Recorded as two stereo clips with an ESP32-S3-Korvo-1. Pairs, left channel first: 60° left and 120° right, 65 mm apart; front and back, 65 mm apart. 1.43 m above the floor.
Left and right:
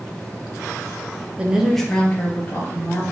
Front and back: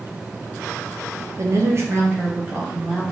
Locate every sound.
1.4 s a woman speaking: straight behind, 0.5 m; by 3.1 s 120° left, 1.5 m